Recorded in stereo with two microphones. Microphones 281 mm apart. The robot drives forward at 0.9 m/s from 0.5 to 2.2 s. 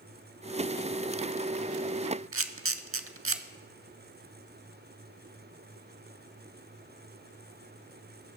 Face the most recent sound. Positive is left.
turn(degrees=-50)  # may be behind; listen again after turning